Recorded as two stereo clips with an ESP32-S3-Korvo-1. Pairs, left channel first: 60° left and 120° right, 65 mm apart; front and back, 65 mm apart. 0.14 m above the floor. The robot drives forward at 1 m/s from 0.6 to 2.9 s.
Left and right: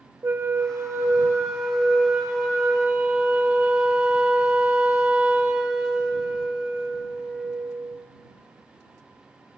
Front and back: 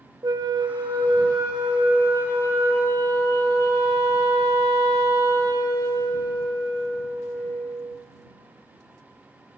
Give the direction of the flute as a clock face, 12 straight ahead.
6 o'clock.